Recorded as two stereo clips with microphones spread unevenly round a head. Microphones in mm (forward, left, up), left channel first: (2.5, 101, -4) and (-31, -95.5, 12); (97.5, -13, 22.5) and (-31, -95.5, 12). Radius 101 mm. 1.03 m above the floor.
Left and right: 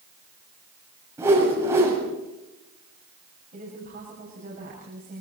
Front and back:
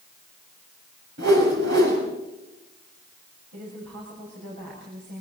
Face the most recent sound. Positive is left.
turn(degrees=-150)